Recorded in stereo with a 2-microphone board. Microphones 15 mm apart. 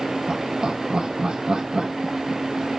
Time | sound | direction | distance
0.3 | laughter | 60° right (ahead or behind) | 1.5 m